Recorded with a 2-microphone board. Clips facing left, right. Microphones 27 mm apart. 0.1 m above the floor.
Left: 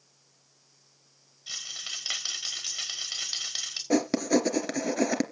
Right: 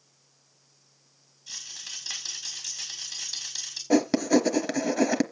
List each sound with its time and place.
1.5 s a rattle: 50° left (ahead or behind), 3.5 m
3.9 s writing: centre (ahead or behind), 1.1 m